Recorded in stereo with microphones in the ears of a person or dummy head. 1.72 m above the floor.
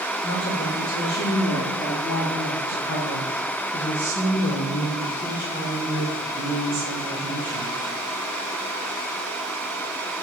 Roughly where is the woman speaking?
Left.